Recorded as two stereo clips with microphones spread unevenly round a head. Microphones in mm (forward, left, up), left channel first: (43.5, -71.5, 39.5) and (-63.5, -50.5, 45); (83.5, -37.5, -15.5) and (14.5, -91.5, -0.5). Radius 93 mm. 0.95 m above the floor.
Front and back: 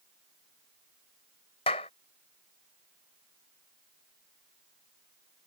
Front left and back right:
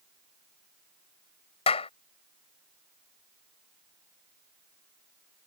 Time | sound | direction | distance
1.7 | a clap | 45° left | ?